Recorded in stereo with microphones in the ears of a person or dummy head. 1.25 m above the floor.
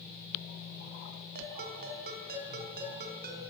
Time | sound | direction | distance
1.4 | a ringtone | 60° right (ahead or behind) | 4.5 m